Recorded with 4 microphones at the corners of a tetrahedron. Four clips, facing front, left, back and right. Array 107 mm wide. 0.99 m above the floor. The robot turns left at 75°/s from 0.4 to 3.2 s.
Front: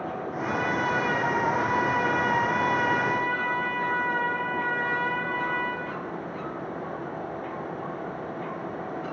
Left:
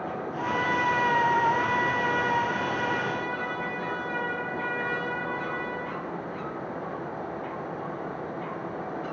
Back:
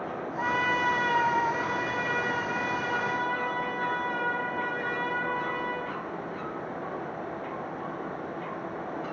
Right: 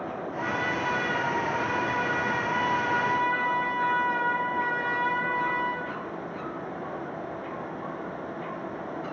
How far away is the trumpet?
About 1.3 m.